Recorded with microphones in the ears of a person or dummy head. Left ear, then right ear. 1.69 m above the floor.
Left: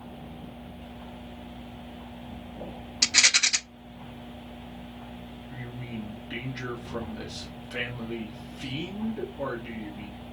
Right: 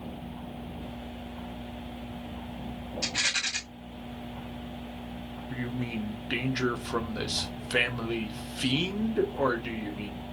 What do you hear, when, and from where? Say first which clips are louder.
3.0 s a rattle: left 8 dB; 70° left (ahead or behind), 0.7 m
5.5 s a man speaking: right 6 dB; 40° right (ahead or behind), 0.9 m